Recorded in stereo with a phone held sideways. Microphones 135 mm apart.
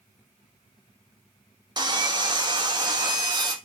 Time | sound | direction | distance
1.8 | sawing | 30° right (ahead or behind) | 1.4 m